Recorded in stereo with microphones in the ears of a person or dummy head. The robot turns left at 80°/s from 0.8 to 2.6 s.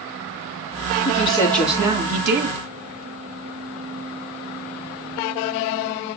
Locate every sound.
1.1 s a woman speaking: 55° left, 2.5 m; by 2.6 s 70° right, 2.5 m